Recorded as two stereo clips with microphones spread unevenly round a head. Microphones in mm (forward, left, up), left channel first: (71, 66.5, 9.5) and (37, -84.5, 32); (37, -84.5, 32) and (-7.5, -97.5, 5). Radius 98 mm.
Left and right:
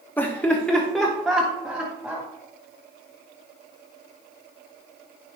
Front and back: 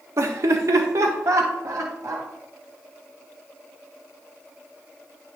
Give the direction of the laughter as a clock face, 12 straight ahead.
7 o'clock.